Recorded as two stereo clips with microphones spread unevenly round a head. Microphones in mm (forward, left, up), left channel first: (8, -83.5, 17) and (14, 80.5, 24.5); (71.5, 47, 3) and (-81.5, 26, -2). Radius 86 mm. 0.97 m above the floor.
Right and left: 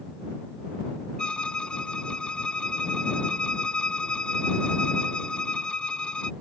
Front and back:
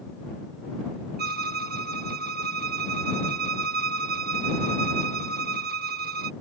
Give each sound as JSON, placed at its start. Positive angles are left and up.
{"t": 1.2, "sound": "a violin", "azimuth_deg": -175}